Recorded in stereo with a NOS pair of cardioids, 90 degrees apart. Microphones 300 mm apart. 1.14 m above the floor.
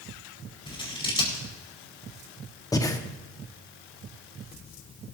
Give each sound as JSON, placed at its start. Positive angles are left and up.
{"t": 0.7, "sound": "scissors", "azimuth_deg": 15, "distance_m": 4.5}
{"t": 2.7, "sound": "breathing", "azimuth_deg": 10, "distance_m": 1.2}